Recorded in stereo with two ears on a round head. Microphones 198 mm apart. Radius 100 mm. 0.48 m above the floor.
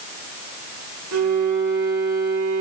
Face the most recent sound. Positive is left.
turn(degrees=-65)  # may be behind; listen again after turning